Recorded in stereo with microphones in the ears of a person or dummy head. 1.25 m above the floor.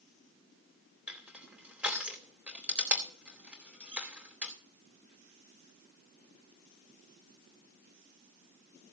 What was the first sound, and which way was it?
Crushing, 5° right (ahead or behind).